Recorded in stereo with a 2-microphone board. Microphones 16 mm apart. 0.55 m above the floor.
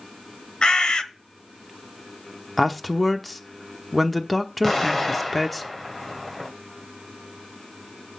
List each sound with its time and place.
0.6 s a bird: 65° left (ahead or behind), 0.9 m
2.6 s a man speaking: 5° left (ahead or behind), 1.1 m
4.6 s an explosion: 15° left (ahead or behind), 1.7 m